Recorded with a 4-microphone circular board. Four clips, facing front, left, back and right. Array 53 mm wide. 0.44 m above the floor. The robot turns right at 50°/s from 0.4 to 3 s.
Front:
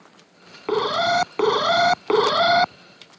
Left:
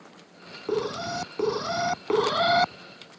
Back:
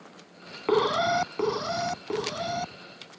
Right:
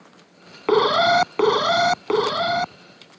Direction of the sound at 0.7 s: 90° right.